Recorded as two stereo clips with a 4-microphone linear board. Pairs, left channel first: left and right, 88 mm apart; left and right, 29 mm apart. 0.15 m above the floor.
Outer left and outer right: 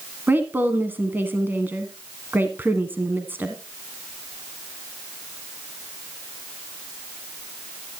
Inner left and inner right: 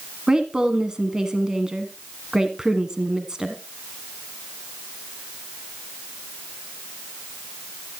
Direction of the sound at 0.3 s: 20° right (ahead or behind).